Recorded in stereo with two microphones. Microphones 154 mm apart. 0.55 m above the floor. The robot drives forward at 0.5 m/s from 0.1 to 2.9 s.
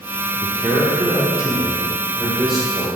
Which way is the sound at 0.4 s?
Centre (ahead or behind).